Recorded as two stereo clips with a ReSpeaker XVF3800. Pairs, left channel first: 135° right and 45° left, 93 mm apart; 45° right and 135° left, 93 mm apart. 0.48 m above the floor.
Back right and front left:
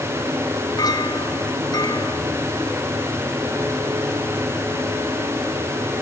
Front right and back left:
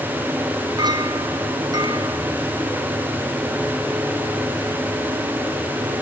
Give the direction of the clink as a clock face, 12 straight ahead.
6 o'clock.